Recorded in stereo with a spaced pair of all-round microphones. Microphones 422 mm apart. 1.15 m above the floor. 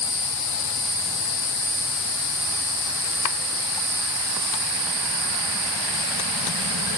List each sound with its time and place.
Only background noise.